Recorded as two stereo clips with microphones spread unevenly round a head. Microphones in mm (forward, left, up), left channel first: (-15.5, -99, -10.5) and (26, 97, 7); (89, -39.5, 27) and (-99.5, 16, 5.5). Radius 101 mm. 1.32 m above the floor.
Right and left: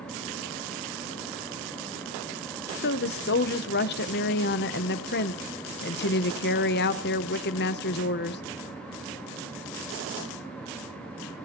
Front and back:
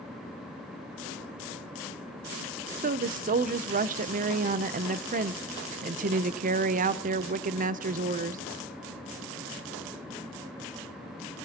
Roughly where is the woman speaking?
Behind right.